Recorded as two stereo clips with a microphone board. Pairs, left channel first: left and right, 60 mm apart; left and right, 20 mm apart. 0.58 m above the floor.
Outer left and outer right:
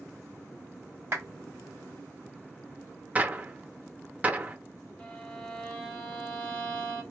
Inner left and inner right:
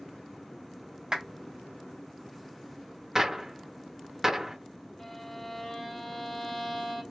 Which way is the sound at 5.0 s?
15° left (ahead or behind).